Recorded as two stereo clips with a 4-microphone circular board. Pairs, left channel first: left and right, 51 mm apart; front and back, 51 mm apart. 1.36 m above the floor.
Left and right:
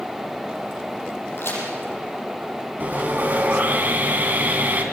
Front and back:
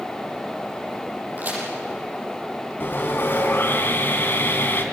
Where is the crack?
130° left, 8.5 m.